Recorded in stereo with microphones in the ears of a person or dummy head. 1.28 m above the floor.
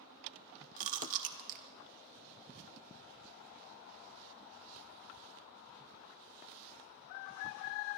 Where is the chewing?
45° right (ahead or behind), 1.1 m.